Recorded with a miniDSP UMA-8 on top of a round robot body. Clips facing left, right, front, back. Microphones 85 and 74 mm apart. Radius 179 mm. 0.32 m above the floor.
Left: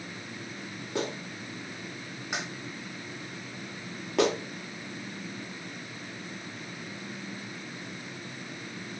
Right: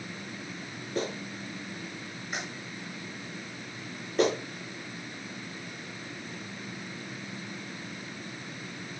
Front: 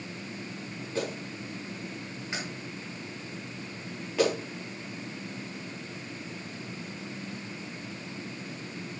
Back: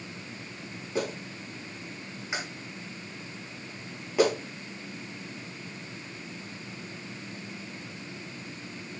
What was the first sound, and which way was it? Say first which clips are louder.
A clap: even, back 2 dB; 105° left.